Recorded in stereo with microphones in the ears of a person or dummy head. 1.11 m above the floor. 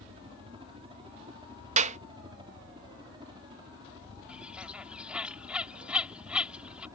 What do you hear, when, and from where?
0.0 s a helicopter: 25° right (ahead or behind); by 7.0 s 15° right (ahead or behind)
1.8 s a clap: 40° right (ahead or behind)
4.3 s a bird: 5° right (ahead or behind)